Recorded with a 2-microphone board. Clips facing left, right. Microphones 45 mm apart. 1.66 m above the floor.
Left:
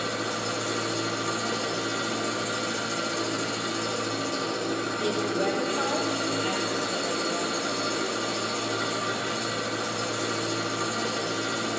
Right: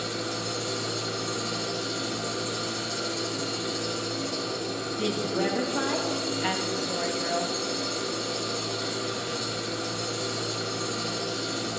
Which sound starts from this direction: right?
A woman speaking, at 5.0 s.